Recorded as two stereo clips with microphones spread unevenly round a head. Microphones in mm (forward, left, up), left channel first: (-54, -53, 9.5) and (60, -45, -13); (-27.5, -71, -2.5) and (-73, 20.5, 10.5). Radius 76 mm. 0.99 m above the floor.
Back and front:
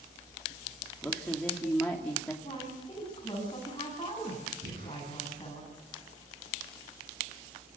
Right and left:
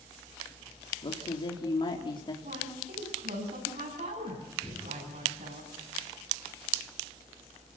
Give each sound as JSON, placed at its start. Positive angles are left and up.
{"t": 1.0, "sound": "a man speaking", "azimuth_deg": -100, "distance_m": 3.0}
{"t": 2.4, "sound": "a woman speaking", "azimuth_deg": 120, "distance_m": 7.5}
{"t": 4.6, "sound": "breathing", "azimuth_deg": 20, "distance_m": 9.5}